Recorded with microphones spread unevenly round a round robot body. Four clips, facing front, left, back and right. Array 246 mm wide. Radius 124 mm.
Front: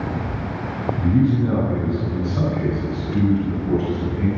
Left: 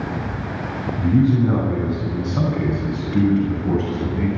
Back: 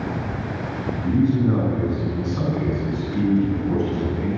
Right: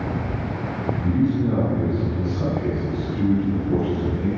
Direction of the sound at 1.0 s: 50° left.